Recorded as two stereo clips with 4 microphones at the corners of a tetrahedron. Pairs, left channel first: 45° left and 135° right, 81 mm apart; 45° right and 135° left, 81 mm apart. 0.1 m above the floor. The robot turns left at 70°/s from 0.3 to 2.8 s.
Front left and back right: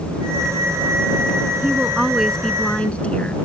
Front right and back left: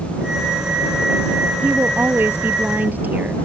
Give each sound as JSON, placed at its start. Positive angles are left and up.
{"t": 1.6, "sound": "a woman speaking", "azimuth_deg": 180}